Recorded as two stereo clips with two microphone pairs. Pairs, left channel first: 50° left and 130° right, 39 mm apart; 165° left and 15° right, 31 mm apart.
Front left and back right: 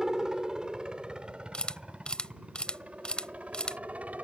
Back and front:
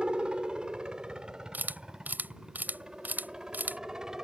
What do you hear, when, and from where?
0.0 s a helicopter: 60° right; by 4.2 s 85° right
1.5 s a camera shutter: 15° right